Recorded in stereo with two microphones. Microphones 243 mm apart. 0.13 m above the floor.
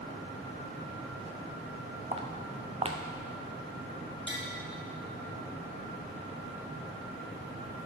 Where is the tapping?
50° left (ahead or behind), 1.7 m.